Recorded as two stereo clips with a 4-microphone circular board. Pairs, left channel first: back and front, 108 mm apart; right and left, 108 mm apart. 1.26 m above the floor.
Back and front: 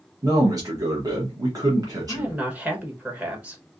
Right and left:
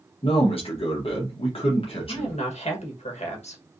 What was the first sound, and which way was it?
A man speaking, 55° right.